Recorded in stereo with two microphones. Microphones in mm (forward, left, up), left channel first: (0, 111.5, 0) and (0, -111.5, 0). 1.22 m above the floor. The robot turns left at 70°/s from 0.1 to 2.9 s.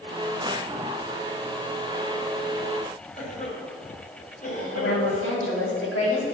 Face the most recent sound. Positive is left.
turn(degrees=85)